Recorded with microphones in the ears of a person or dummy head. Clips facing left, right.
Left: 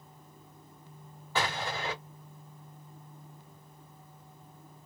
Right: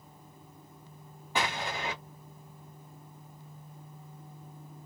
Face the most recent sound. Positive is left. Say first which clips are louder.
# even
turn(degrees=-15)  # may be behind; listen again after turning